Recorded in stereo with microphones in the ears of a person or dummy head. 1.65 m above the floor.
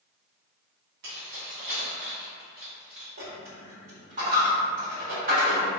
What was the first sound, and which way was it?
Keys jangling, 55° right (ahead or behind).